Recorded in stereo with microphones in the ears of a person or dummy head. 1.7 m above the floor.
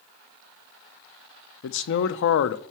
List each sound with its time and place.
1.6 s a man speaking: 65° left (ahead or behind), 0.7 m